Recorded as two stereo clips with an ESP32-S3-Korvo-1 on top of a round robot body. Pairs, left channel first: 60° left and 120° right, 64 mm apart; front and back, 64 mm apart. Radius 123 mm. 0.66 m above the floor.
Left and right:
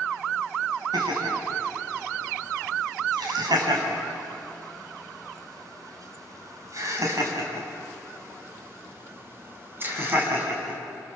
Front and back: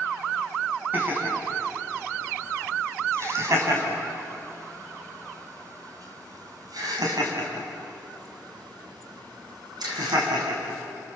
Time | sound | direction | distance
0.9 | laughter | 120° right | 5.5 m